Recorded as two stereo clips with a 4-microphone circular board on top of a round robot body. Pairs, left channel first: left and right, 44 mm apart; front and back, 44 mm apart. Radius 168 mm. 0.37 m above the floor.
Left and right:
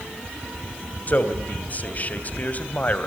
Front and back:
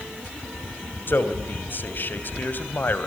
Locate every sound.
1.1 s a man speaking: 40° left, 3 m